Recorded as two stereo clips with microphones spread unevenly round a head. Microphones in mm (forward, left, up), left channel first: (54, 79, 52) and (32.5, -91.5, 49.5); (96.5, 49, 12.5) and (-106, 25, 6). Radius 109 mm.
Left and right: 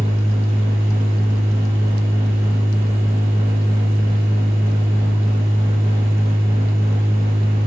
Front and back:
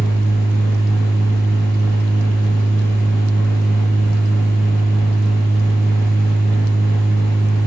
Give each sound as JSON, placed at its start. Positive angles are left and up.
{"t": 0.0, "sound": "a machine running", "azimuth_deg": -30, "distance_m": 1.3}